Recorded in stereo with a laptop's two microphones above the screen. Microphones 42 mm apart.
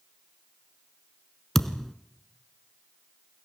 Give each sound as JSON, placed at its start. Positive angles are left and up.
{"t": 1.6, "sound": "a thud", "side_deg": 5, "distance_m": 1.2}